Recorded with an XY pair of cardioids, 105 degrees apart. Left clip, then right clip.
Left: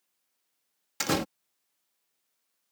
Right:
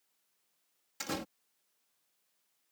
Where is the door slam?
70° left.